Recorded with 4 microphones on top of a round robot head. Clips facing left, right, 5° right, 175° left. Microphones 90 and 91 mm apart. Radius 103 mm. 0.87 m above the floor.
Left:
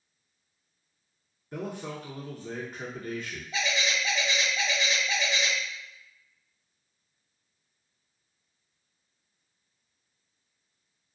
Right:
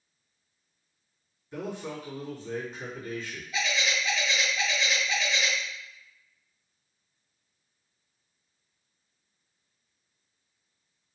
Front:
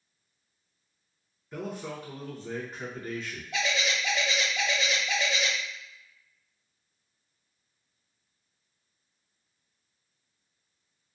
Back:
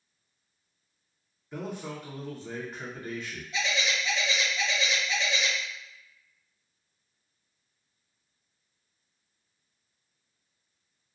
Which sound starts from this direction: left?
A man speaking, at 1.5 s.